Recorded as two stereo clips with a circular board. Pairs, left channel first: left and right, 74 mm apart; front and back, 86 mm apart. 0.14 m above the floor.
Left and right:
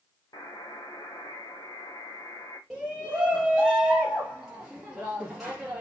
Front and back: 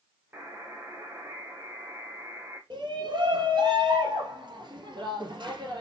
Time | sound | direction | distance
0.3 | a buzzer | 115° left | 3 m
2.7 | a shout | 175° right | 2.5 m